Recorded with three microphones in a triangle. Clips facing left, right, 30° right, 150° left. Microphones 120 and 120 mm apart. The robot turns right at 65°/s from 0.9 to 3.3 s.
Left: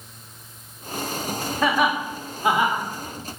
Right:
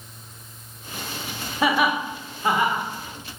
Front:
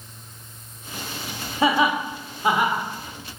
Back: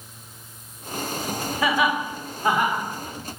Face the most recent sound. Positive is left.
turn(degrees=85)